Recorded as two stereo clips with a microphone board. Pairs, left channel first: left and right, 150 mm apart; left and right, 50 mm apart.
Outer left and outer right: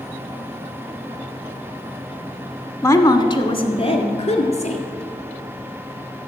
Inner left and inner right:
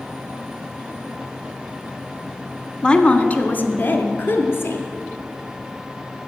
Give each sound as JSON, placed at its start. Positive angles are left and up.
{"t": 2.8, "sound": "a woman speaking", "side_deg": 15, "distance_m": 1.1}